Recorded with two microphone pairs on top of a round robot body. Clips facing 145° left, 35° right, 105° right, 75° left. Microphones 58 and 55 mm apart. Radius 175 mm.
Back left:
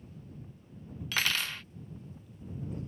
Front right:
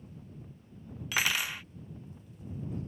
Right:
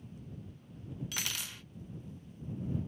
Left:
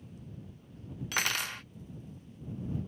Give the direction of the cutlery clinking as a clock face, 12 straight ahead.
11 o'clock.